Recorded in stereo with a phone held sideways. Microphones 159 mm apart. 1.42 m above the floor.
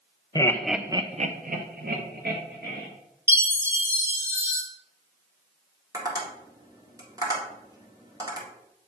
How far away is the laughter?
About 0.7 m.